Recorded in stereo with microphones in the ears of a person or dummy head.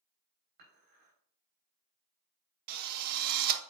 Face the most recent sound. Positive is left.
turn(degrees=-55)  # may be behind; listen again after turning